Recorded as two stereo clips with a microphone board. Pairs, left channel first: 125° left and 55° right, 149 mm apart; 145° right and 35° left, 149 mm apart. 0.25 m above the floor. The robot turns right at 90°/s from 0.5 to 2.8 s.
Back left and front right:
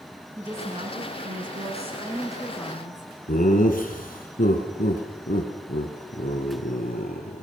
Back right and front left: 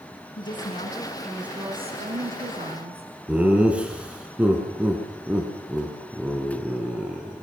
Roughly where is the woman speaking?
Behind right.